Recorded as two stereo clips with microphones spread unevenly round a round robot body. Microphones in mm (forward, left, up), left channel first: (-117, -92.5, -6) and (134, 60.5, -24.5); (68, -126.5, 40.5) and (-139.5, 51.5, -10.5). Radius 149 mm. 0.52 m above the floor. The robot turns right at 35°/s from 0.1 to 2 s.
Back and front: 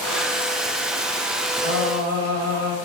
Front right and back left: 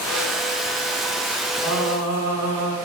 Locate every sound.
1.6 s singing: 60° left, 1.5 m; by 2.8 s 70° left, 1.5 m